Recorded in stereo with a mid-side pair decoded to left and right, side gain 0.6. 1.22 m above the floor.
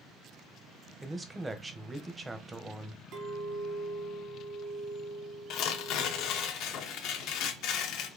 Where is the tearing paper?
65° left, 0.7 m.